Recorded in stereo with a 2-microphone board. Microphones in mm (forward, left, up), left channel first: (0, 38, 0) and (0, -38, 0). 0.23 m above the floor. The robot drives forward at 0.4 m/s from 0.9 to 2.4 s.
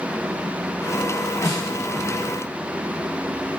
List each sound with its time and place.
1.4 s a snare drum: 40° left (ahead or behind), 1.5 m